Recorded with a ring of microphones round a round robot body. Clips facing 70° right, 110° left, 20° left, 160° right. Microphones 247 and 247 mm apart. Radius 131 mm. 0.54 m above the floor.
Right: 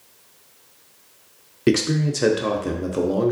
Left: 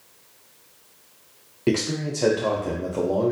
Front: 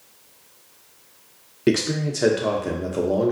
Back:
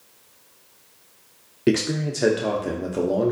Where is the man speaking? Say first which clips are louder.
Right 4 dB, even; 70° right, 0.6 m.